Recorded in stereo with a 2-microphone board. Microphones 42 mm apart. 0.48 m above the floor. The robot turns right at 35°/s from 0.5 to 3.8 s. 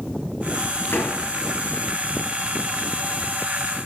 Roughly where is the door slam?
Left.